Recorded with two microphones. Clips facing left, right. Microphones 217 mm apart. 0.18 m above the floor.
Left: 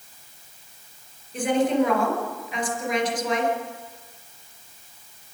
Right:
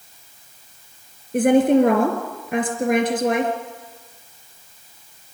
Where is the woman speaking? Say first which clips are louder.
Right 7 dB; 55° right (ahead or behind), 3.5 m.